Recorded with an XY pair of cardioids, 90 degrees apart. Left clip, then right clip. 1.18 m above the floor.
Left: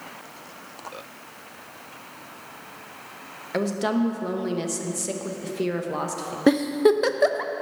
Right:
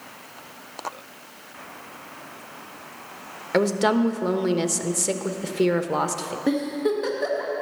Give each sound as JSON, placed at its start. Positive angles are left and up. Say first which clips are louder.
{"t": 3.5, "sound": "a woman speaking", "louder": "right 5 dB", "azimuth_deg": -35, "distance_m": 1.0}
{"t": 6.5, "sound": "a giggle", "louder": "left 6 dB", "azimuth_deg": 70, "distance_m": 0.6}